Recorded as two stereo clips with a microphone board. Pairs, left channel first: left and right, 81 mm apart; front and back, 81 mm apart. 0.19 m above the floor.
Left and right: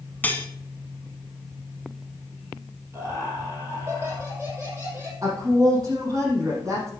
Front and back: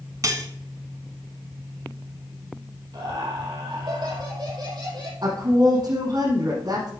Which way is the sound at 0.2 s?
150° left.